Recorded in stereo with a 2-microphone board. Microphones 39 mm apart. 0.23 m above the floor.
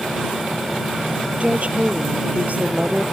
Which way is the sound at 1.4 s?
40° right (ahead or behind).